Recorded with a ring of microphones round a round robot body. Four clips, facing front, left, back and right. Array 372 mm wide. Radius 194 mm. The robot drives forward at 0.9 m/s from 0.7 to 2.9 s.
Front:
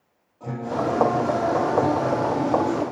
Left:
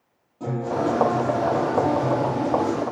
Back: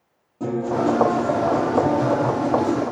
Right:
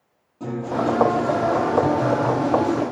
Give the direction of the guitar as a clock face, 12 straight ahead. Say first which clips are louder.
Right 1 dB, back 5 dB; 6 o'clock.